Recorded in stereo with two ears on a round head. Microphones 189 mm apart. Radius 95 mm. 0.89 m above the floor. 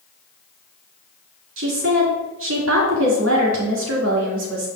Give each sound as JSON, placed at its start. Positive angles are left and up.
{"t": 1.6, "sound": "a woman speaking", "side_deg": -65, "distance_m": 2.5}